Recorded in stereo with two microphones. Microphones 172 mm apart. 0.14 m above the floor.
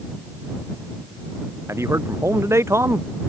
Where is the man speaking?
15° right (ahead or behind).